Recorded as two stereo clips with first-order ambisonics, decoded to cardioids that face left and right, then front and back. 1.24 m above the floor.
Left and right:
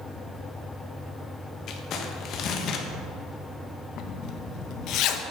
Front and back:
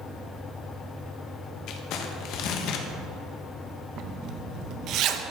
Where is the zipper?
130° left, 0.8 m.